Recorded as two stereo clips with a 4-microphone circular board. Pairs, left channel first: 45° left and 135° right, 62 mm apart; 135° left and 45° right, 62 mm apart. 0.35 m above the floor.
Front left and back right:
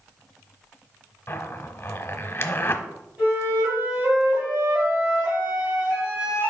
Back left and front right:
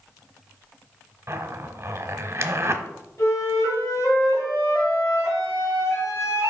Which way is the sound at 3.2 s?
160° left.